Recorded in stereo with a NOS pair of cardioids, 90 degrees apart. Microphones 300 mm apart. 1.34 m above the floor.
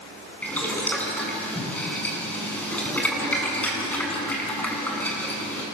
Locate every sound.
0.4 s boiling: 5° left, 6 m